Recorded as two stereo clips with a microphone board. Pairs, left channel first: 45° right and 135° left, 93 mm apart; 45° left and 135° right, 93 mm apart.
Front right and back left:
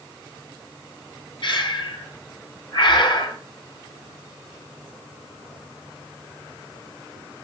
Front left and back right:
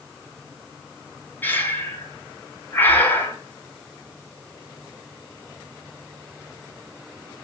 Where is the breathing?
20° right, 3 m.